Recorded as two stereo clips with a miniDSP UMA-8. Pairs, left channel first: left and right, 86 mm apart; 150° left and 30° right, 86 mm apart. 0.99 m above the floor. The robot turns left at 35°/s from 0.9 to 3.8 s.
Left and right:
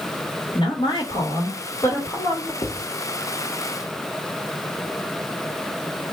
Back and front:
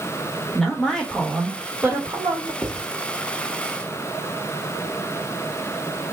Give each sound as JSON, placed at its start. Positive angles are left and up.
{"t": 0.6, "sound": "a woman speaking", "azimuth_deg": 65, "distance_m": 1.6}
{"t": 2.6, "sound": "writing", "azimuth_deg": 60, "distance_m": 2.0}